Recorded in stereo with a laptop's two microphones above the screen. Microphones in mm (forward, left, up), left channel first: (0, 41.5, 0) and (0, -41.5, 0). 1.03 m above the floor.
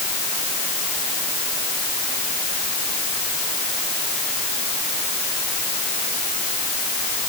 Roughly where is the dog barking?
I don't hear a dog barking.